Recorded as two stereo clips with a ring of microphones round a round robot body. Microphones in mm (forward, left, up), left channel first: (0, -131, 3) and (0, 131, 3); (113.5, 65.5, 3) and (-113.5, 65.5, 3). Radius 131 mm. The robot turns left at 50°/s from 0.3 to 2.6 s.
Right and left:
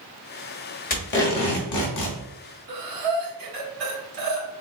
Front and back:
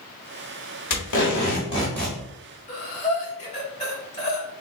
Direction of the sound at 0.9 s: 30° right.